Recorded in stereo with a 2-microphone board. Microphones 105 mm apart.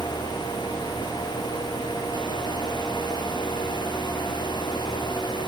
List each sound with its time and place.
Only background noise.